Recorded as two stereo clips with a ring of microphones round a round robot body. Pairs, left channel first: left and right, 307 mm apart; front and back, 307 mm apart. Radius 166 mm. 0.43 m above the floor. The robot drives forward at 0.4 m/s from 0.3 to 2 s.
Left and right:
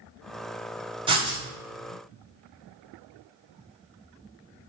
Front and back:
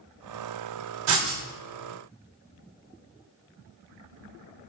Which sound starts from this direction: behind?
Writing, at 1.1 s.